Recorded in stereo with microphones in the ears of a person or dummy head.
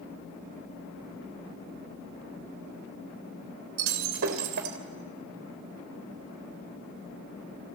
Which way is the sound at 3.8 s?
70° right (ahead or behind).